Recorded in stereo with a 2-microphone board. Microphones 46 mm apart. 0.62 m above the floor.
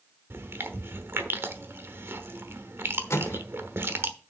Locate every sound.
0.3 s chewing: 55° right (ahead or behind), 1.0 m
3.1 s a microwave: 70° left (ahead or behind), 1.2 m